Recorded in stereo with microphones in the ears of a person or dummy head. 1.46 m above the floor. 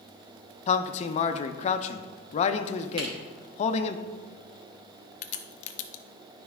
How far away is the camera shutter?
About 2.5 m.